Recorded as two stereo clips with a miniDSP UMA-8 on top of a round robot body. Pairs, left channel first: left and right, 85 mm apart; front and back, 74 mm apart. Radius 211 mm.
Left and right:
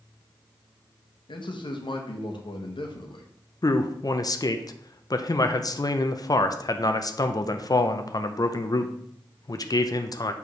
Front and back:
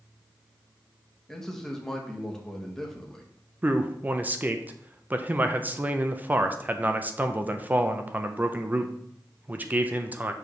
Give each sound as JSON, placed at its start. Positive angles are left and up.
{"t": 1.3, "sound": "a man speaking", "azimuth_deg": 85, "distance_m": 1.2}
{"t": 3.6, "sound": "a man speaking", "azimuth_deg": 120, "distance_m": 0.7}